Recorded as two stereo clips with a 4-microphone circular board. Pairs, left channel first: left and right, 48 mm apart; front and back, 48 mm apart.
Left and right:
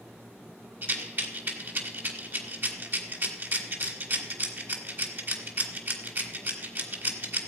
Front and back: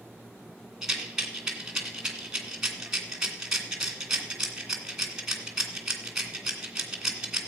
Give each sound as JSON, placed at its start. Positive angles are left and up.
{"t": 0.8, "sound": "a rattle", "azimuth_deg": -105, "distance_m": 2.5}